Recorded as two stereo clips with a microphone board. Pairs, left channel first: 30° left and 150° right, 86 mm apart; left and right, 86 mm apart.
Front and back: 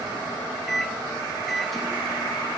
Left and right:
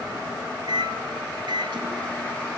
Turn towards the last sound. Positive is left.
turn(degrees=-60)